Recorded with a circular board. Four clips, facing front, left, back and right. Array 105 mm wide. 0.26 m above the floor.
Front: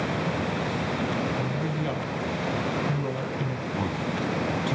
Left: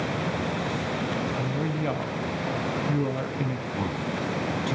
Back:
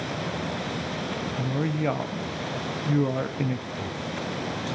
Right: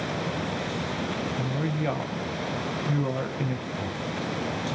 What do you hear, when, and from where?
1.4 s a woman speaking: 175° right, 1.2 m
3.7 s a man speaking: 45° left, 7 m